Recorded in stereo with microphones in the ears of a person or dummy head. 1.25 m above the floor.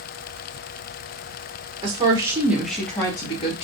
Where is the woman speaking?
30° right (ahead or behind), 1.0 m; by 3.7 s 35° left (ahead or behind), 1.0 m.